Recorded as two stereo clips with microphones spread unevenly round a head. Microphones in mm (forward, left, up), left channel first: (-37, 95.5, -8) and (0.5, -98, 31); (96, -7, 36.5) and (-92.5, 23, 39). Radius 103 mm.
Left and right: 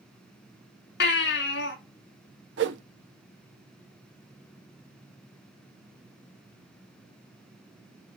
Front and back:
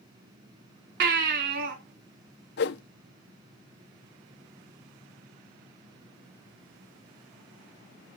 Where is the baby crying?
140° left, 3 m.